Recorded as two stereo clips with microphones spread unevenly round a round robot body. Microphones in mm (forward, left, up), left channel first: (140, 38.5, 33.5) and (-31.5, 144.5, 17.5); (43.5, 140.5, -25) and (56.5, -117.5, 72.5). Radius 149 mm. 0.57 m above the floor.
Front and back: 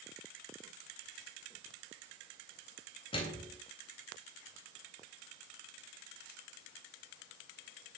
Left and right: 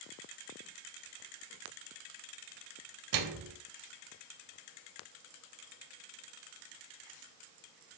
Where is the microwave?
105° right, 3 m.